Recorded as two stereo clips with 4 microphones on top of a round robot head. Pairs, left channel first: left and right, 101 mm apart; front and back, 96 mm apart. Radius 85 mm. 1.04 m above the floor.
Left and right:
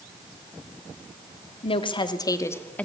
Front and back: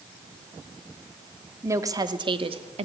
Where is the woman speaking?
120° left, 2 m; by 2.9 s 170° left, 2 m.